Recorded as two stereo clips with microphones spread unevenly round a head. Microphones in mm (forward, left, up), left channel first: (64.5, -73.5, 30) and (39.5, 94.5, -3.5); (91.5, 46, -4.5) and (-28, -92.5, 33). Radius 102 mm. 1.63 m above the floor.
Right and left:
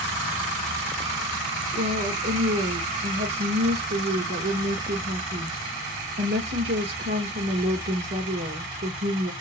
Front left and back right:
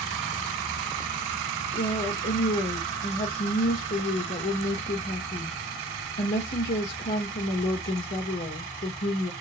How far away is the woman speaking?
About 2 m.